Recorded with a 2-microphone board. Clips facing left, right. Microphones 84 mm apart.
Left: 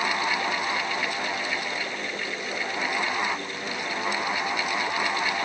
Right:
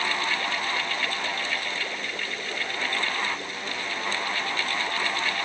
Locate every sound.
Only background noise.